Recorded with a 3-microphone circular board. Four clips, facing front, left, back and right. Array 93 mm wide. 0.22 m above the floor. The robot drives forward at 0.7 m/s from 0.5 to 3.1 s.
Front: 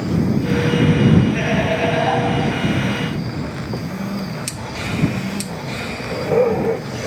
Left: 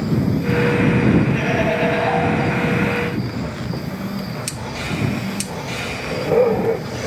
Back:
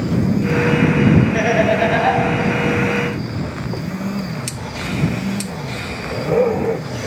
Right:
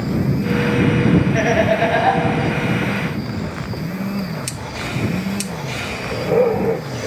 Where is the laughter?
130° right, 3.5 m; by 2.2 s 140° right, 4 m.